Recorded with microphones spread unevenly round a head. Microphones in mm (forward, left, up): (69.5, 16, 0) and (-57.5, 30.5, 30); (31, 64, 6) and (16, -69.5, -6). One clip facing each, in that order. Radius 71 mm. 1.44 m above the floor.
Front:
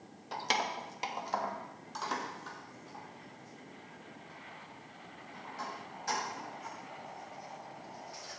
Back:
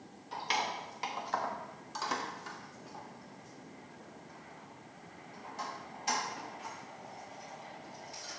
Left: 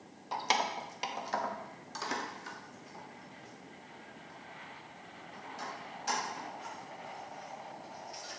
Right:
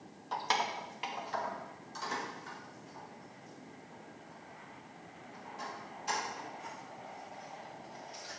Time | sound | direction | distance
0.3 | keys jangling | 10° left | 1.0 m